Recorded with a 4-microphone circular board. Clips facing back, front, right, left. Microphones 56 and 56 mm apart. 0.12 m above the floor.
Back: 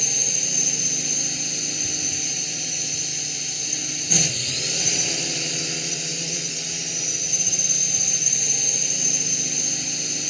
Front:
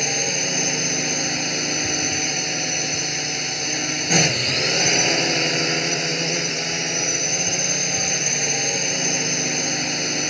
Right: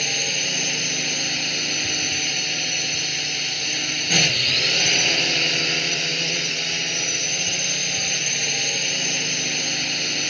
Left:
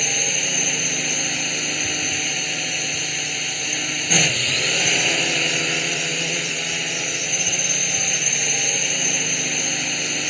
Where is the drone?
10° left.